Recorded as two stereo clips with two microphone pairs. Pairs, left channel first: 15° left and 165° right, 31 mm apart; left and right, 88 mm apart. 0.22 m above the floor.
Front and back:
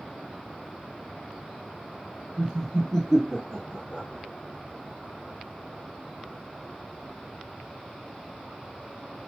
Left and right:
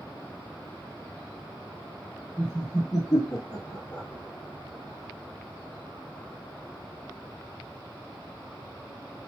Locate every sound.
2.4 s laughter: 120° left, 1.9 m; by 4.1 s 35° left, 2 m